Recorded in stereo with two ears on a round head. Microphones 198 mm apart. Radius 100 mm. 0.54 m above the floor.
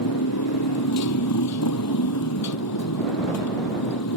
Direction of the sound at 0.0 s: 80° left.